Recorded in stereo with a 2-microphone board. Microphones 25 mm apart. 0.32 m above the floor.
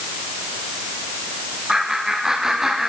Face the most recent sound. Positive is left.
turn(degrees=-15)  # may be behind; listen again after turning